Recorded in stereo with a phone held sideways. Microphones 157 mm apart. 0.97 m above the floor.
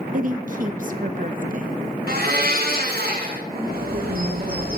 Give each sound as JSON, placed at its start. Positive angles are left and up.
{"t": 0.1, "sound": "a woman speaking", "side_deg": -60, "distance_m": 0.7}
{"t": 2.1, "sound": "a blender", "side_deg": -85, "distance_m": 1.5}
{"t": 3.5, "sound": "a bird", "side_deg": -80, "distance_m": 1.7}